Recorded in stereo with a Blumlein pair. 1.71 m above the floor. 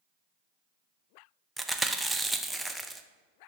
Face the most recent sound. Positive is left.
turn(degrees=-5)